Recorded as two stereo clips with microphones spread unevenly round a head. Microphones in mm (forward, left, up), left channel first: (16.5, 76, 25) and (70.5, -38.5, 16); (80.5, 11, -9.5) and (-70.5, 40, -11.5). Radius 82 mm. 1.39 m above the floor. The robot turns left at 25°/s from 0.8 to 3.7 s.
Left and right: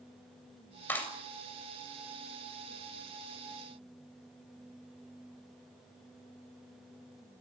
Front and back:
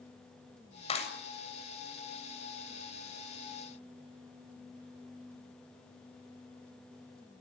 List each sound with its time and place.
0.9 s a clap: 40° left, 7.5 m; by 1.1 s 35° left, 7.5 m